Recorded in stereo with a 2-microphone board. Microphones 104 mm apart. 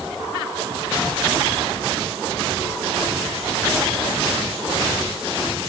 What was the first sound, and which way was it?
Only background noise.